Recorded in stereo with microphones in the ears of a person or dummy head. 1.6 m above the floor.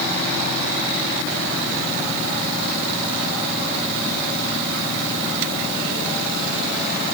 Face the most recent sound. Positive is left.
No sound to turn to.